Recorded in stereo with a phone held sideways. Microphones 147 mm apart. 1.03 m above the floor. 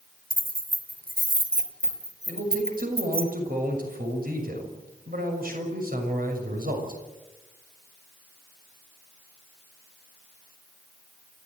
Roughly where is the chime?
I don't hear a chime.